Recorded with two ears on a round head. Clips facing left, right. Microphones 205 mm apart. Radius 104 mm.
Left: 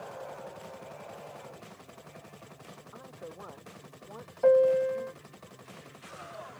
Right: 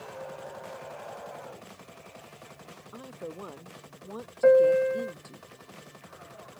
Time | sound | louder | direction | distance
2.9 | a woman speaking | right 6 dB | 40° right (ahead or behind) | ?
4.4 | a piano | right 3 dB | 25° right (ahead or behind) | ?